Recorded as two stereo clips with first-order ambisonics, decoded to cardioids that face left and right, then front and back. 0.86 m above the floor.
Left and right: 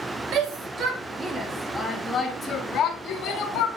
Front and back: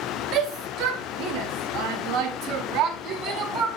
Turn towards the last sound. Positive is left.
turn(degrees=135)